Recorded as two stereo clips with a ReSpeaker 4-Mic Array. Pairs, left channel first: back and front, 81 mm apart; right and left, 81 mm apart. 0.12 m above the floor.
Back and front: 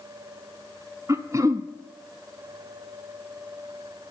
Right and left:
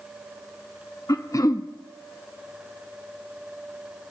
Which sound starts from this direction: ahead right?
Throat clearing, at 1.1 s.